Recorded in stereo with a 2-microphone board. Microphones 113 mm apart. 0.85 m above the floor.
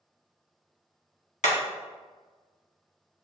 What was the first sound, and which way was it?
Hammering, 75° left (ahead or behind).